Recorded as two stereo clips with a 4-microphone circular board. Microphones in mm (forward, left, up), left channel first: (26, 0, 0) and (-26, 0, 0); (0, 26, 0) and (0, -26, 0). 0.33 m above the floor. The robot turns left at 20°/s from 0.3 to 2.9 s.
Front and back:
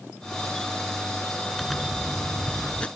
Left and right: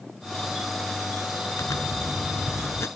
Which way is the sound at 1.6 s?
90° left.